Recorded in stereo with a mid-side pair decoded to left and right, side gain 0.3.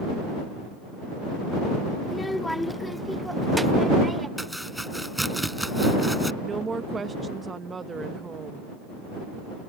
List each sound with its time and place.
2.0 s a child speaking: 40° left; by 4.3 s 30° right
4.4 s chopping: 5° right
6.4 s a woman speaking: 50° right